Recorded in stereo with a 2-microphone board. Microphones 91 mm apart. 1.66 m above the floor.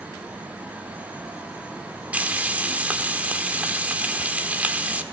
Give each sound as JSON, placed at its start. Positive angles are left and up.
{"t": 2.1, "sound": "frying", "side_deg": -15, "distance_m": 1.4}